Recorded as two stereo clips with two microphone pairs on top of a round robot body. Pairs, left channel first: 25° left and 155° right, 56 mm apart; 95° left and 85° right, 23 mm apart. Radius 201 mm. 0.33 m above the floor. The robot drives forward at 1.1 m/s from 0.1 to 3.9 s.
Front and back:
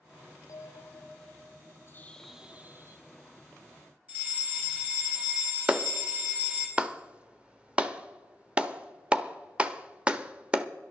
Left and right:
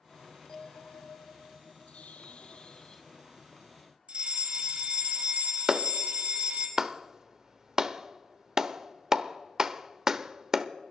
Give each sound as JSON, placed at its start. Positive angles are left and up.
{"t": 0.5, "sound": "a bell", "azimuth_deg": 40, "distance_m": 0.8}
{"t": 1.9, "sound": "a bird", "azimuth_deg": 65, "distance_m": 0.6}
{"t": 4.1, "sound": "a fire alarm", "azimuth_deg": -100, "distance_m": 4.5}
{"t": 5.7, "sound": "a clap", "azimuth_deg": -105, "distance_m": 1.0}